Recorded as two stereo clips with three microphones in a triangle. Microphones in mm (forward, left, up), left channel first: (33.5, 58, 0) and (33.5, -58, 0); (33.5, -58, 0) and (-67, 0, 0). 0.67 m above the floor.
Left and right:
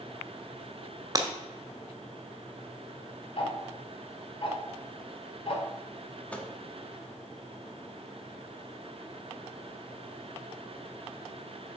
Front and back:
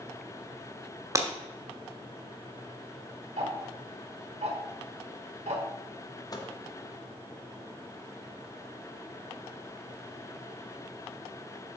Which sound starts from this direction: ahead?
A microwave, at 6.3 s.